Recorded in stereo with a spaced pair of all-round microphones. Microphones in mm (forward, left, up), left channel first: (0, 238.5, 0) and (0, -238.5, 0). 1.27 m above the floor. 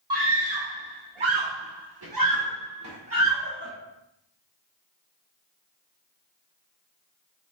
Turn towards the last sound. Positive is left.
turn(degrees=-25)  # may be behind; listen again after turning